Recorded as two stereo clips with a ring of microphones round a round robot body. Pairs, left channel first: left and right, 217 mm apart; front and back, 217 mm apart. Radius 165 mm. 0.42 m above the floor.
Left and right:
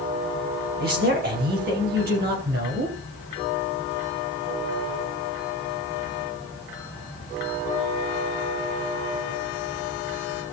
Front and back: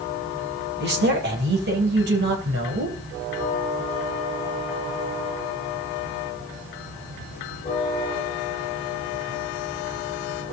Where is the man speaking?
140° right, 3 m.